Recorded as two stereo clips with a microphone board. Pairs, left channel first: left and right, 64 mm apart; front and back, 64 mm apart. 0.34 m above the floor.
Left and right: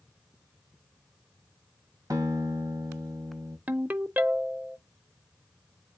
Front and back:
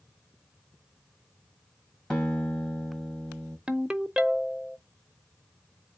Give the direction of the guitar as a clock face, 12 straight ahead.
2 o'clock.